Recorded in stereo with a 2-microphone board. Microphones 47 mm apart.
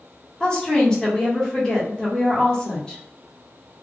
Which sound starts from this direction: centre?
A woman speaking, at 0.4 s.